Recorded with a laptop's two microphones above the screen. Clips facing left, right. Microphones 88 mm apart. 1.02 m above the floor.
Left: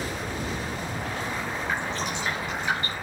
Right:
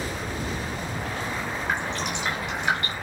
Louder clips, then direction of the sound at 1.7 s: Right 2 dB; 65° right (ahead or behind).